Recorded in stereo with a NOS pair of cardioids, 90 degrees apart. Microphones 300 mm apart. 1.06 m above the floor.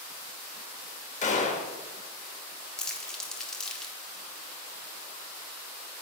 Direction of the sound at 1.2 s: 25° left.